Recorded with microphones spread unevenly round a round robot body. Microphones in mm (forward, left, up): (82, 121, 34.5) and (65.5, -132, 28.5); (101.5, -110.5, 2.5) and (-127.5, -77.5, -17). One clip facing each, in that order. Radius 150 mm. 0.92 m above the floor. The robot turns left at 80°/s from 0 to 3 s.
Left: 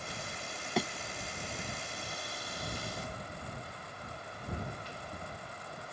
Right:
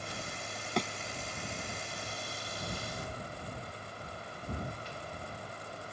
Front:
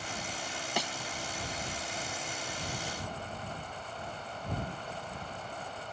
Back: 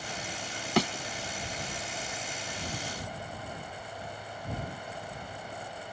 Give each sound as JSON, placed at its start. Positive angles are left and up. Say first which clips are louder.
{"t": 0.8, "sound": "a thud", "louder": "left 1 dB, back 11 dB", "azimuth_deg": 170}